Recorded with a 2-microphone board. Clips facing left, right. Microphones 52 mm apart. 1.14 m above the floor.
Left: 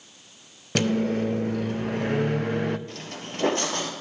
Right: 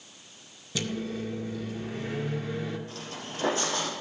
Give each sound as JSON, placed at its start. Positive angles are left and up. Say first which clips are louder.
{"t": 0.8, "sound": "a microwave", "louder": "left 9 dB", "side_deg": 55, "distance_m": 0.5}
{"t": 2.9, "sound": "footsteps", "louder": "left 2 dB", "side_deg": 45, "distance_m": 1.7}